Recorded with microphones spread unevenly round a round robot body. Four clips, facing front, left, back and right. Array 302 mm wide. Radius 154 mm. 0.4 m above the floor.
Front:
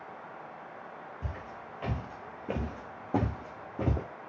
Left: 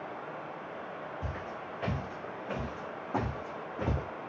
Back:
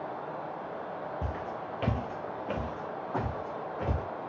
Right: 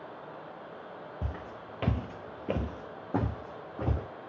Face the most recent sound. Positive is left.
turn(degrees=-10)